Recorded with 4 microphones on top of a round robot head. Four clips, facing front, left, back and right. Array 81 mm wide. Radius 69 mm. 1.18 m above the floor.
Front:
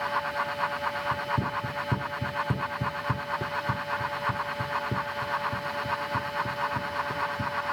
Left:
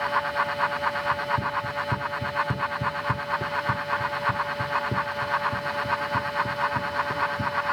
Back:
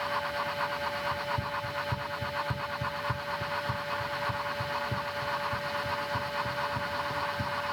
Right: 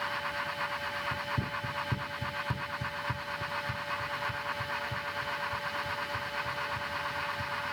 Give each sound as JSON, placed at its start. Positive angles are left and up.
{"t": 1.1, "sound": "running footsteps", "azimuth_deg": -5}